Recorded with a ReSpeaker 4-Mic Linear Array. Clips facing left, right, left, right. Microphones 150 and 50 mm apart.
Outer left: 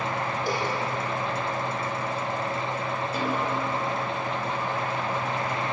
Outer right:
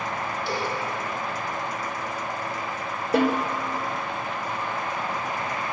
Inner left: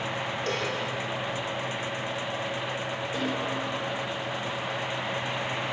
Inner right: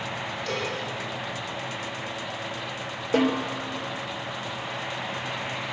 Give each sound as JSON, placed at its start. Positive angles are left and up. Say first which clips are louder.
{"t": 0.5, "sound": "a cowbell", "louder": "even, inner right 1 dB", "side_deg": 45, "distance_m": 9.0}
{"t": 3.1, "sound": "a snare drum", "louder": "outer right 8 dB, inner right 8 dB", "side_deg": -65, "distance_m": 3.5}